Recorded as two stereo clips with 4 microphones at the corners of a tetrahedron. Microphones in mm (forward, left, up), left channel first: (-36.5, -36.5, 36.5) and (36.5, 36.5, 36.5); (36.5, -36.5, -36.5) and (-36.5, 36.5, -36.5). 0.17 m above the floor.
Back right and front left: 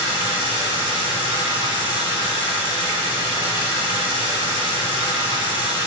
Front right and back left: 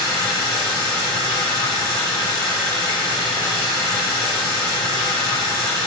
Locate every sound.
0.0 s running water: 10° left, 3 m